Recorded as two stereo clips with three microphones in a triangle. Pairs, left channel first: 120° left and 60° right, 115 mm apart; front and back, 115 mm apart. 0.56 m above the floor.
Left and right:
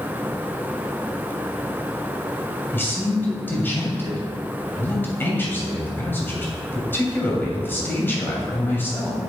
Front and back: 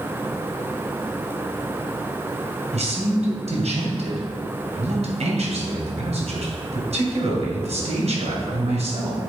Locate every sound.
2.7 s a man speaking: 170° right, 2.5 m